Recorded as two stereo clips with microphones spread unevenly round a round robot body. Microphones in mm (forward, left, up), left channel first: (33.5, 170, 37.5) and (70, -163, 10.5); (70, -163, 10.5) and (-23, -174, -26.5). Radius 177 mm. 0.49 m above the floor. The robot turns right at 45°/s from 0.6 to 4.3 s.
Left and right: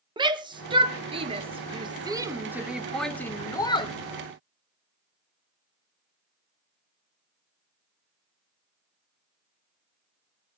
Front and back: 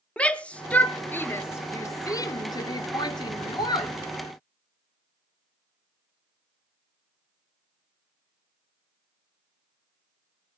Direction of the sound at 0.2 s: 110° right.